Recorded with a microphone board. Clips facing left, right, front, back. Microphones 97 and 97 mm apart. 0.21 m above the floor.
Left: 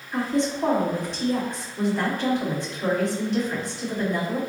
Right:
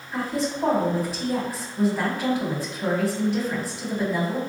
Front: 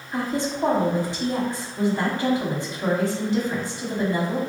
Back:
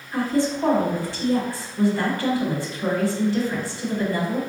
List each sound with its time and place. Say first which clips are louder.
0.1 s a woman speaking: left 2 dB, back 4 dB; 15° right, 1.0 m